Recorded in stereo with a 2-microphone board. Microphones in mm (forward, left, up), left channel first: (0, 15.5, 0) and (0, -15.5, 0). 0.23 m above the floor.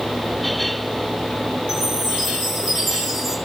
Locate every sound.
1.7 s a chime: 5° left (ahead or behind), 6.5 m